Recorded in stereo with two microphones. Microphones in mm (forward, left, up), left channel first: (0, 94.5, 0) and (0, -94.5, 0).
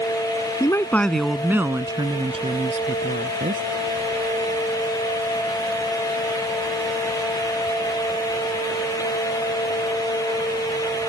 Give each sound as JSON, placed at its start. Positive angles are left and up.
{"t": 0.6, "sound": "a woman speaking", "side_deg": 20}